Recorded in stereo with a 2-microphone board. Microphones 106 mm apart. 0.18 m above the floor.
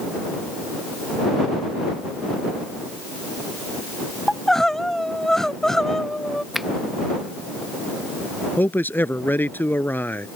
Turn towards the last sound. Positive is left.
turn(degrees=20)  # may be behind; listen again after turning